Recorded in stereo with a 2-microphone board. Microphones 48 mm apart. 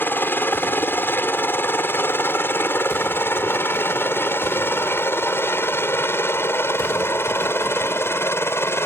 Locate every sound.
0.0 s a helicopter: 45° left (ahead or behind); by 8.9 s 60° left (ahead or behind)